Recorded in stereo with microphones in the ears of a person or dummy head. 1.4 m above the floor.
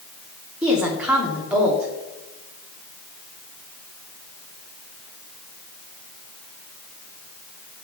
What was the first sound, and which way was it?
A woman speaking, 5° right (ahead or behind).